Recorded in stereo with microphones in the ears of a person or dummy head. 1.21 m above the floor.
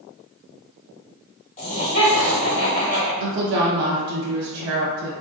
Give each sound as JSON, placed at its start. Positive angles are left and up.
{"t": 1.6, "sound": "laughter", "side_deg": 40, "distance_m": 1.0}
{"t": 3.2, "sound": "a woman speaking", "side_deg": -75, "distance_m": 0.6}